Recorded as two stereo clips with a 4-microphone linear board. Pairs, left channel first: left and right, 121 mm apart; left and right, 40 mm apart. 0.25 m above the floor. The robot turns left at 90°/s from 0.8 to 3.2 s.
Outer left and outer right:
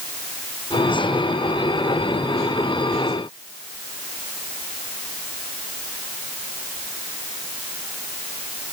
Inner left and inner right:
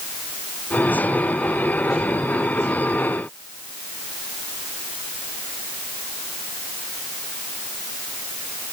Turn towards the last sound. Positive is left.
No sound to turn to.